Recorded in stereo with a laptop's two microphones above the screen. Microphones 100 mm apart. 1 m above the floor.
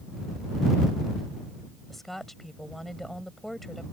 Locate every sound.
1.9 s a woman speaking: centre (ahead or behind)